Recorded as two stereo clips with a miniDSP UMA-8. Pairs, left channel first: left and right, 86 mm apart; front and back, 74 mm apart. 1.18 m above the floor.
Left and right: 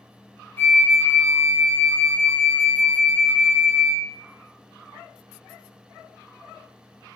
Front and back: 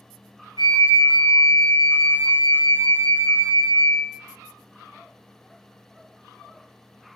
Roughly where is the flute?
Behind left.